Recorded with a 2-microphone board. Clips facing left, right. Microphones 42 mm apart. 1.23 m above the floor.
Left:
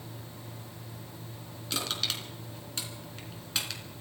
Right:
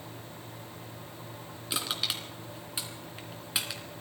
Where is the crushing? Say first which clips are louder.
Even; 10° right (ahead or behind), 2.5 m.